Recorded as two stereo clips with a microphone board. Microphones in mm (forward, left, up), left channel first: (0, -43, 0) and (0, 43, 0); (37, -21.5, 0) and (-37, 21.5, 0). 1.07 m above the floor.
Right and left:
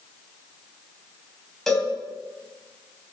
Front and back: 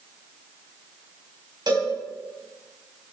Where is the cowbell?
175° right, 4 m.